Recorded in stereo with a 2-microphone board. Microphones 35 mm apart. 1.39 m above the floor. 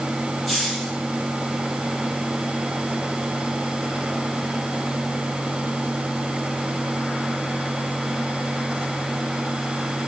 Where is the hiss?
5° left (ahead or behind), 7.5 m.